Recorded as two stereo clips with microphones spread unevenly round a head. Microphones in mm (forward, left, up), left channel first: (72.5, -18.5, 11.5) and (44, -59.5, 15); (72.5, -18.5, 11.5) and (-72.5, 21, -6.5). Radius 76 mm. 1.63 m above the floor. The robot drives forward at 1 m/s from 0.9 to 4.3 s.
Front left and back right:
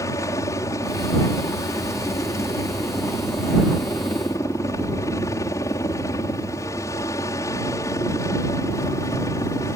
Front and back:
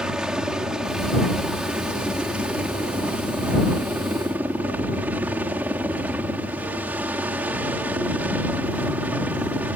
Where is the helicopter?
80° left; by 9.8 s 85° left.